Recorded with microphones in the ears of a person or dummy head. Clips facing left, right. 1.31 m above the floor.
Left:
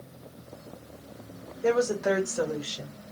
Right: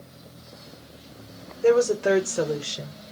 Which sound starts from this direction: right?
A woman speaking, at 1.6 s.